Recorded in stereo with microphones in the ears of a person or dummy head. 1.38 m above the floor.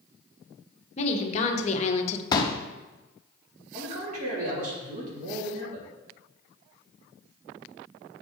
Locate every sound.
1.0 s a woman speaking: 40° left (ahead or behind), 1.6 m
2.3 s a pop: 25° left (ahead or behind), 0.8 m
3.7 s a man speaking: 50° right (ahead or behind), 3.5 m